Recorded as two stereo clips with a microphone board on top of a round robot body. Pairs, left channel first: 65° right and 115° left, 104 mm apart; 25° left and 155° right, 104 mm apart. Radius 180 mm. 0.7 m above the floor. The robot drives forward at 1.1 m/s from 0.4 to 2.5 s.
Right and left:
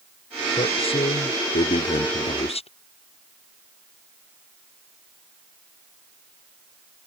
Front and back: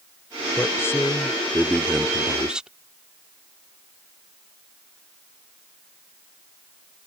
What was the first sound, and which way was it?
A man speaking, 40° right.